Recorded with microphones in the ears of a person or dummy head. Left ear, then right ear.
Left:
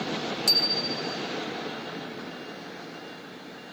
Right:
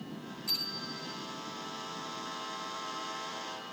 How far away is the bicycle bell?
About 4.5 m.